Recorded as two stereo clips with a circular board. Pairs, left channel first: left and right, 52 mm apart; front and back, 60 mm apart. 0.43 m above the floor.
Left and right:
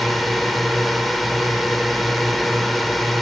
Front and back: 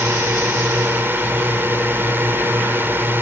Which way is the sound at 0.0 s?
Straight behind.